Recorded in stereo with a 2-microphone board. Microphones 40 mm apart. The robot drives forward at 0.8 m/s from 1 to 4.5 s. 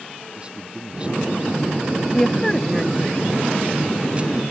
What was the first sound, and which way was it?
A man speaking, 30° right (ahead or behind).